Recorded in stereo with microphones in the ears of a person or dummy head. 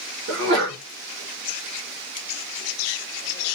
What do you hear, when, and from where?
0.3 s a sneeze: 65° right (ahead or behind), 1.0 m